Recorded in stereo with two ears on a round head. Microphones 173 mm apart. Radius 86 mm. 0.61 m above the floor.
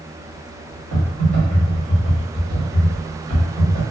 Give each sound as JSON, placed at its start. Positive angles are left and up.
{"t": 0.9, "sound": "typing on a keyboard", "side_deg": -50, "distance_m": 1.8}